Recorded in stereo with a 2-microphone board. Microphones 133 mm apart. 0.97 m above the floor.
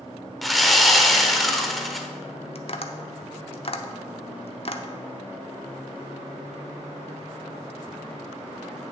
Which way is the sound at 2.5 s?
50° left (ahead or behind).